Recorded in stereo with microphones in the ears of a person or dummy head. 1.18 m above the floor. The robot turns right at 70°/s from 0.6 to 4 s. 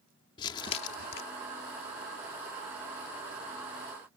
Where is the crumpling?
25° left; by 1.2 s 65° left.